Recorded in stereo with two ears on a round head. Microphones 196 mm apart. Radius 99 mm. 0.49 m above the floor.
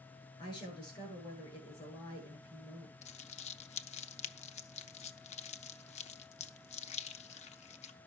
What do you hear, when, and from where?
0.4 s a woman speaking: 20° left (ahead or behind), 9.5 m
3.0 s crumpling: 30° left (ahead or behind), 0.7 m